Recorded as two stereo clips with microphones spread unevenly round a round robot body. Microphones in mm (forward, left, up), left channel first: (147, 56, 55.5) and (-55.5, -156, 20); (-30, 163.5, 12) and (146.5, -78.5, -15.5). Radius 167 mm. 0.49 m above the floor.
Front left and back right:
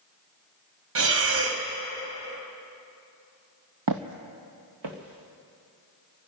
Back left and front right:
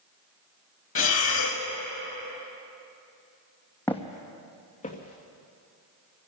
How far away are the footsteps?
About 0.8 m.